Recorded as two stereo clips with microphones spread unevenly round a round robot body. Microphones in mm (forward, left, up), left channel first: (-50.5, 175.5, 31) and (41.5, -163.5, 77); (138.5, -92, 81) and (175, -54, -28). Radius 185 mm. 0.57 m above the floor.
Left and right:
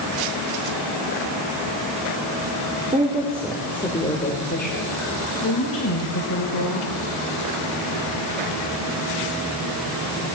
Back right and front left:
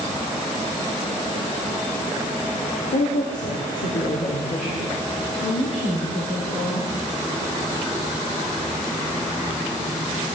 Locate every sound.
2.9 s a woman speaking: 150° right, 2.0 m; by 7.0 s 145° left, 4.5 m